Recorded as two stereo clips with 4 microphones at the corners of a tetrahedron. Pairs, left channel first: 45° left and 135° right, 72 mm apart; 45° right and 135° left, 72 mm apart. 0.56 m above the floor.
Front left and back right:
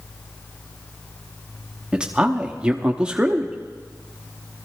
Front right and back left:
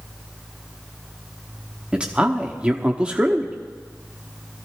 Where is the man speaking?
170° left, 0.8 m.